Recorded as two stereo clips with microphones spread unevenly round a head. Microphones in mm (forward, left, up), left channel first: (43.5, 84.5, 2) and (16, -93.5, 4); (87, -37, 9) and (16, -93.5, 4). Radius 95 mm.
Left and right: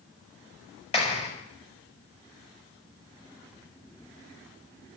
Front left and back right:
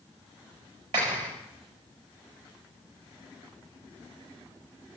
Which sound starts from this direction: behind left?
A clap, at 0.9 s.